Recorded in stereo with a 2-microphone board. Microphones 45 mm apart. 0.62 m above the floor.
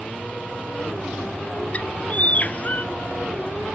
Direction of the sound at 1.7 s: 35° left (ahead or behind).